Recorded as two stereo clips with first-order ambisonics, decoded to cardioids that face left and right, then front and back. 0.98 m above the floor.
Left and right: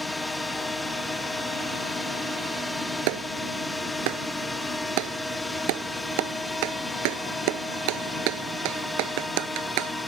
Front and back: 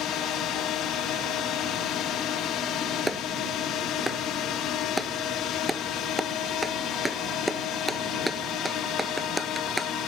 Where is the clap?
95° right.